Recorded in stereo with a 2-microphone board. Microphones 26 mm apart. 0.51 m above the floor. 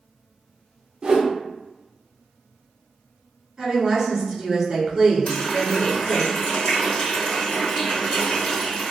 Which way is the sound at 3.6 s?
15° right (ahead or behind).